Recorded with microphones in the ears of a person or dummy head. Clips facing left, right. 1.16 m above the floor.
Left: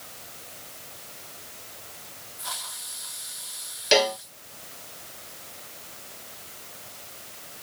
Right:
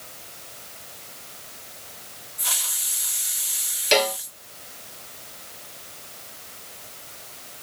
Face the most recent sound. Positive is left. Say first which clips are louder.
# even
turn(degrees=0)  # may be behind; listen again after turning